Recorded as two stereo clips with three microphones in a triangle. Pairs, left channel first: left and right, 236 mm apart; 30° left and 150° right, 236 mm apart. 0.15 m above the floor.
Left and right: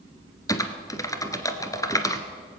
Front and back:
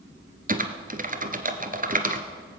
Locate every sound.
0.5 s typing on a keyboard: 165° left, 1.2 m